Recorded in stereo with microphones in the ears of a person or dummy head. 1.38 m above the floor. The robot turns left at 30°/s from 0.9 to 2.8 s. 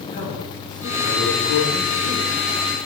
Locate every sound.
0.1 s a man speaking: 130° left, 1.8 m; by 2.3 s 90° left, 1.8 m